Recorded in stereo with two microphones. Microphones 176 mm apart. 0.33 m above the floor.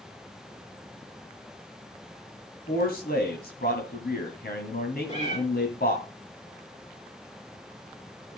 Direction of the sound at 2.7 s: 60° left (ahead or behind).